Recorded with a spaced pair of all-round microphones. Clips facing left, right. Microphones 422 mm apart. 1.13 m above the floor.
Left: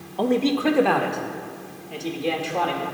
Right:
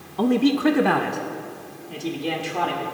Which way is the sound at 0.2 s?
20° right (ahead or behind).